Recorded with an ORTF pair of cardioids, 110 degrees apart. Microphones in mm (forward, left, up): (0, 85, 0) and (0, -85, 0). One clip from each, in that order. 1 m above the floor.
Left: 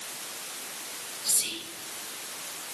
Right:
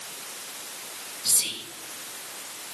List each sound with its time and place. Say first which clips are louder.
1.2 s whispering: right 3 dB; 30° right, 0.9 m